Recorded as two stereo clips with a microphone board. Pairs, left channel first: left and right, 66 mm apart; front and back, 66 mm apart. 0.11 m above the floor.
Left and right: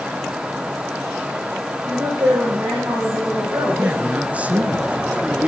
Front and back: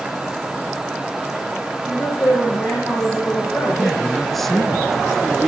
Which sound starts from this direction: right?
A man speaking, at 3.8 s.